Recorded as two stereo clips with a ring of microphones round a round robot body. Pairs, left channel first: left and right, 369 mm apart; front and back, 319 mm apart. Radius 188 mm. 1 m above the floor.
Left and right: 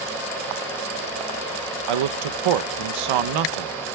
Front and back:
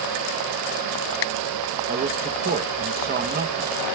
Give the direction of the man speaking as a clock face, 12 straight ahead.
4 o'clock.